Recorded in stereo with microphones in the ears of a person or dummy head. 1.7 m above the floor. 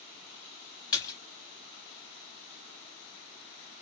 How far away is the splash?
About 1.2 m.